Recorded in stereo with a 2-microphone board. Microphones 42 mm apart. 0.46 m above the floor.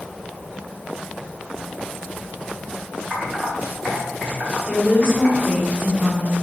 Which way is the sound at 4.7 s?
25° left (ahead or behind).